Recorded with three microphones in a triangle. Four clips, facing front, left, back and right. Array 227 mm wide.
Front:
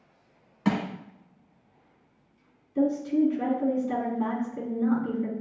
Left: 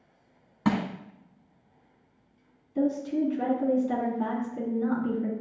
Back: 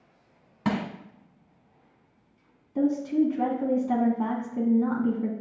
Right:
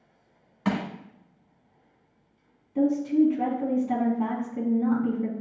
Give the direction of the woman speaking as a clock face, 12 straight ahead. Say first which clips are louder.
Right 5 dB, even; 5 o'clock.